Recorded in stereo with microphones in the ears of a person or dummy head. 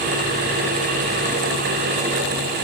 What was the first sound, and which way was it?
Only background noise.